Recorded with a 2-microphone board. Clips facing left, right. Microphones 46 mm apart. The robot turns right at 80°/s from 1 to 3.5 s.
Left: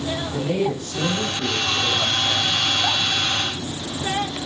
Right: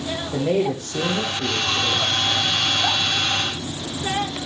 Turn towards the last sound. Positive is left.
turn(degrees=150)